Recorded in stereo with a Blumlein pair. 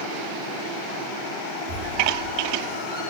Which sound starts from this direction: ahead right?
A squeak, at 1.7 s.